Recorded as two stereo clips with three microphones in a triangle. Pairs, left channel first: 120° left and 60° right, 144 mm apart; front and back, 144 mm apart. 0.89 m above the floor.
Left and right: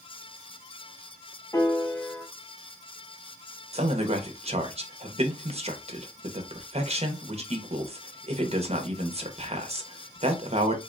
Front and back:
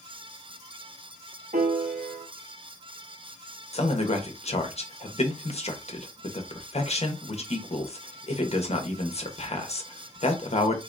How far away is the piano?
About 0.8 m.